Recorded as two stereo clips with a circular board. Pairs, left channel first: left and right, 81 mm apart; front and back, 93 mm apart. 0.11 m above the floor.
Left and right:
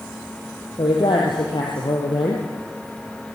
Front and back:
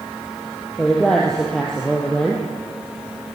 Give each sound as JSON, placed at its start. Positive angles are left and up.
{"t": 0.8, "sound": "a woman speaking", "azimuth_deg": 80, "distance_m": 4.0}